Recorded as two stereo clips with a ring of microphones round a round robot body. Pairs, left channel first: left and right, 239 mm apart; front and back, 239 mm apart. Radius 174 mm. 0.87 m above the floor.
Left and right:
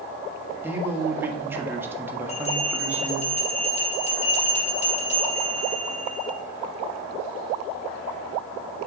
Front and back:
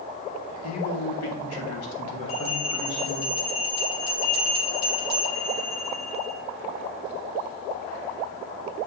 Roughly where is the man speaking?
Ahead.